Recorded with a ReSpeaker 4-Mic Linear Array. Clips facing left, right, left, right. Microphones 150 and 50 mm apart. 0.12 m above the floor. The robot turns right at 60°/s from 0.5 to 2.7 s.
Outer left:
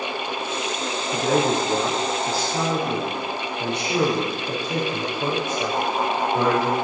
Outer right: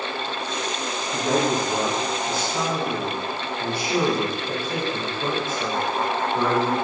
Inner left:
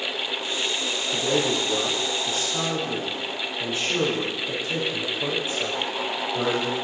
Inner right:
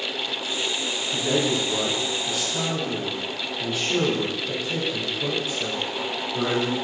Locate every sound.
1.1 s a man speaking: 65° left, 4.5 m; by 6.8 s 160° left, 4.5 m